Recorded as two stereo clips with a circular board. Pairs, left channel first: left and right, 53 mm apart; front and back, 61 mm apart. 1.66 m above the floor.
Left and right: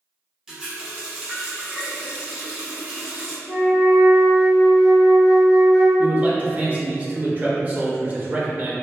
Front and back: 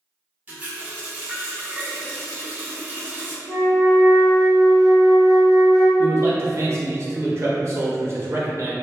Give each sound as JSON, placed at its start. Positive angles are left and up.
{"t": 0.5, "sound": "a running tap", "azimuth_deg": -150, "distance_m": 0.6}
{"t": 3.5, "sound": "a flute", "azimuth_deg": -85, "distance_m": 1.5}
{"t": 6.0, "sound": "a man speaking", "azimuth_deg": -145, "distance_m": 0.6}